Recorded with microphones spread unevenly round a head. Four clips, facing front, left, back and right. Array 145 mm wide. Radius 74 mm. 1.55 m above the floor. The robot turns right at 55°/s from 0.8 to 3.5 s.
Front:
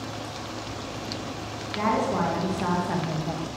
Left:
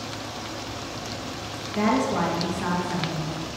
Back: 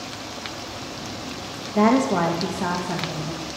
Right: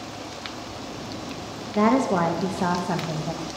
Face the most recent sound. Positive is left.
turn(degrees=-50)